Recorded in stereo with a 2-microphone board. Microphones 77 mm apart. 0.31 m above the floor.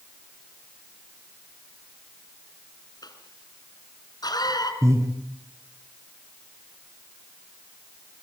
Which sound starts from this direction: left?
A cough, at 3.0 s.